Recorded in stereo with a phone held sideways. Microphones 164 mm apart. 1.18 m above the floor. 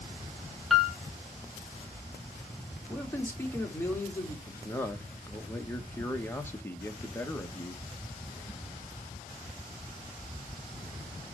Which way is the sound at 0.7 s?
Centre (ahead or behind).